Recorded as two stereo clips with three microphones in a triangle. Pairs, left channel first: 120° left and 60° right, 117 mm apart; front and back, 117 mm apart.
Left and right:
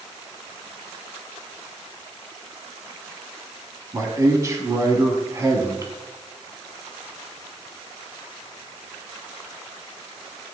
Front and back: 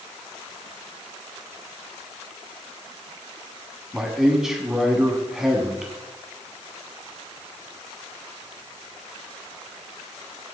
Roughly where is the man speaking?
Right.